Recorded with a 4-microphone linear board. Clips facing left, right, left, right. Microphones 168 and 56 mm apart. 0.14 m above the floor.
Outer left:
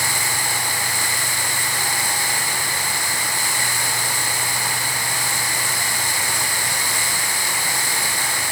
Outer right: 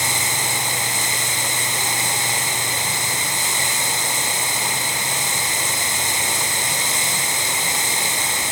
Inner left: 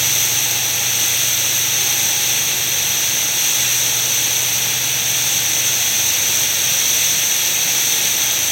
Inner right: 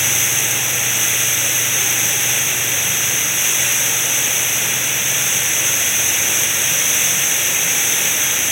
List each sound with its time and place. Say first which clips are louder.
0.0 s running water: outer right 1 dB, inner right 2 dB; 20° right (ahead or behind), 0.8 m